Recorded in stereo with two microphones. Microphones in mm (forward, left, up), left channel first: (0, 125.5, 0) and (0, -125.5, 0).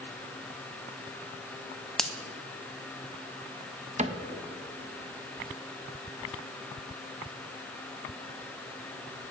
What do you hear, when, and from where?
2.0 s a finger snap: centre (ahead or behind), 0.8 m
4.0 s a cupboard door: 30° right (ahead or behind), 0.6 m